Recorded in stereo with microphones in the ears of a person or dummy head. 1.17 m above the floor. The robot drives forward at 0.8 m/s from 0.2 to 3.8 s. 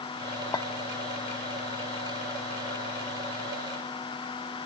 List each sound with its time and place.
0.5 s a clink: 25° left (ahead or behind), 1.1 m; by 0.7 s 20° left (ahead or behind), 1.2 m